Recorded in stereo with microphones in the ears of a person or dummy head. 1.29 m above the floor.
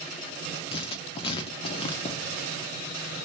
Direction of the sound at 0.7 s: 35° left (ahead or behind).